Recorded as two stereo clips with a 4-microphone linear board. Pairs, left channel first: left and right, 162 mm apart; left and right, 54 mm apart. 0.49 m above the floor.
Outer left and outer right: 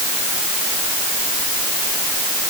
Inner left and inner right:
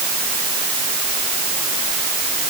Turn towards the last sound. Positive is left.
No sound to turn to.